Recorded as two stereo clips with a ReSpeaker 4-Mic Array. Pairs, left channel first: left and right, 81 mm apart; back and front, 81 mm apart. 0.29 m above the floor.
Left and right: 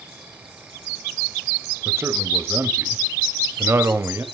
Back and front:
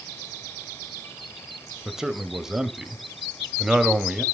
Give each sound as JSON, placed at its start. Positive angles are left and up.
{"t": 1.9, "sound": "a man speaking", "azimuth_deg": -75, "distance_m": 1.3}